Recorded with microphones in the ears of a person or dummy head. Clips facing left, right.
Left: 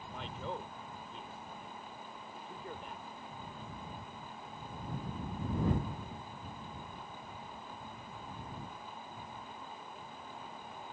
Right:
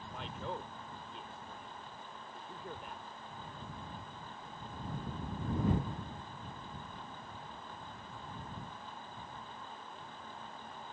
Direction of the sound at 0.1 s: Centre (ahead or behind).